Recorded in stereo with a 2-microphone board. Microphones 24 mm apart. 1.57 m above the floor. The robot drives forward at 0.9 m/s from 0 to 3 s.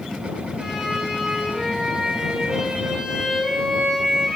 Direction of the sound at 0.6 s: 20° right (ahead or behind).